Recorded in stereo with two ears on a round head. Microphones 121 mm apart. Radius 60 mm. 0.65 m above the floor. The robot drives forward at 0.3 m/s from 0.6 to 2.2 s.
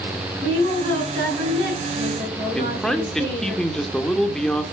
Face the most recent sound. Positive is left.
turn(degrees=5)  # may be behind; listen again after turning